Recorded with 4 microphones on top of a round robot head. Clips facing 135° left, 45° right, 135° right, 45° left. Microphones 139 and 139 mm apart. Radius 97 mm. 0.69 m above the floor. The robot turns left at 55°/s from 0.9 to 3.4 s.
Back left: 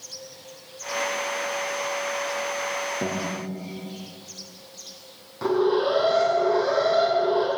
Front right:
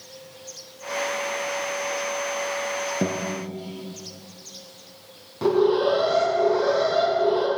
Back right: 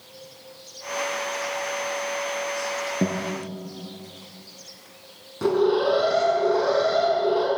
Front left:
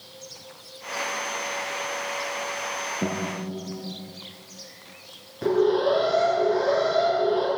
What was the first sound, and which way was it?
A guitar, 105° right.